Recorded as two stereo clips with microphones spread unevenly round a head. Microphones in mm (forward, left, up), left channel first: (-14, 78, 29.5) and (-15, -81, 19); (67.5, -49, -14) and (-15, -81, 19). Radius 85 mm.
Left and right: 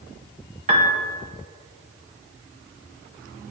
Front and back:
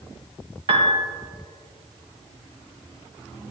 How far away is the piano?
About 1.5 m.